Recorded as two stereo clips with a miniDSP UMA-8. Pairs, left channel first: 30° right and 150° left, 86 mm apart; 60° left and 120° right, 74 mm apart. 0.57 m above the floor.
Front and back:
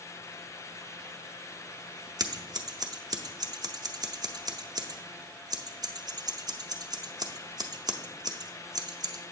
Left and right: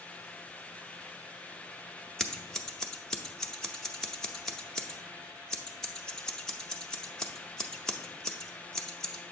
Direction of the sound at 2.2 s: 140° left.